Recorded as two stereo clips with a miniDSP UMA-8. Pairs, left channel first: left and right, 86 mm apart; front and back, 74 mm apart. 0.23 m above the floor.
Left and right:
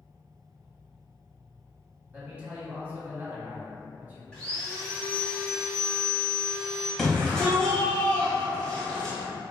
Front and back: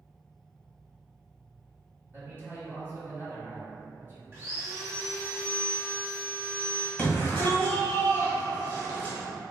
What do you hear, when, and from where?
2.1 s a man speaking: 145° right, 1.1 m
4.3 s sawing: 165° left, 1.2 m
7.0 s a shout: 20° left, 1.0 m